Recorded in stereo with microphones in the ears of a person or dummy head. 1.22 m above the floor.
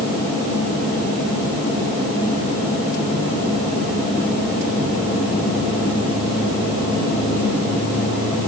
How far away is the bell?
I don't hear a bell.